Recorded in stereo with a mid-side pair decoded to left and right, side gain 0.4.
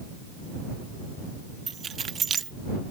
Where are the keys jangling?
55° right.